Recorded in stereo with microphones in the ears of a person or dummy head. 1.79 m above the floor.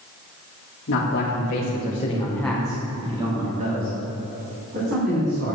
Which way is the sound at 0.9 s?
70° left (ahead or behind).